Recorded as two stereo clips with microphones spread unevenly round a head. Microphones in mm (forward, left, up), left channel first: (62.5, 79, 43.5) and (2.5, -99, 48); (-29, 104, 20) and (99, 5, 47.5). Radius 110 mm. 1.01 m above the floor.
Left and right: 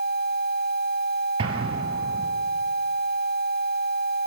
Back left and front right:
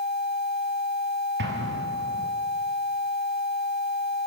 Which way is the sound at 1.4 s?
45° right.